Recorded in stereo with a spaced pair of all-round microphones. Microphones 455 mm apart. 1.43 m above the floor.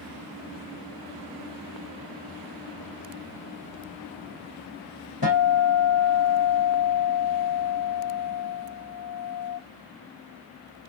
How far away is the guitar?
About 1.3 m.